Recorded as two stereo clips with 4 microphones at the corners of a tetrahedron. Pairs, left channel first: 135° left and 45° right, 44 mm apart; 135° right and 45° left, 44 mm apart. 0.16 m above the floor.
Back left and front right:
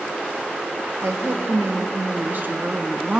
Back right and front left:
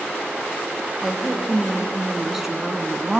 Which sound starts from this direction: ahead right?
A woman speaking, at 1.0 s.